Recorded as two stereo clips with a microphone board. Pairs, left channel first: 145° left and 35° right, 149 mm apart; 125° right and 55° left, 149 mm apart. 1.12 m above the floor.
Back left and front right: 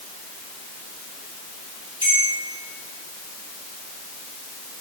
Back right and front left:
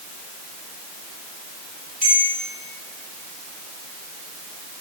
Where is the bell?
25° left, 5 m.